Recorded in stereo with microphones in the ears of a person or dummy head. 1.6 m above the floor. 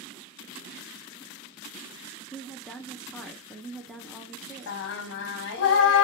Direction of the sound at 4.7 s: 70° left (ahead or behind).